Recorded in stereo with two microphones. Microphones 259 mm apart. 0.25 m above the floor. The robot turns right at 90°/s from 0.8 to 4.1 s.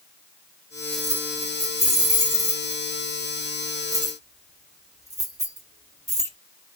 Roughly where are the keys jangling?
Right.